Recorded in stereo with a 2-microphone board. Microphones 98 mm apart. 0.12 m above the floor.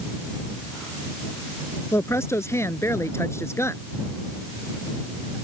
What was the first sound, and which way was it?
A woman speaking, 30° left (ahead or behind).